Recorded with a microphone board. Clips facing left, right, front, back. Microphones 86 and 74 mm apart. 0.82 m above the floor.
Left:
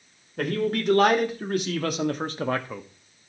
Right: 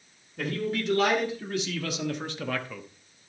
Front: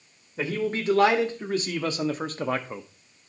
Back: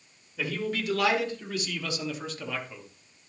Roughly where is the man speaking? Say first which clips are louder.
Left 4 dB, front 4 dB; ahead left.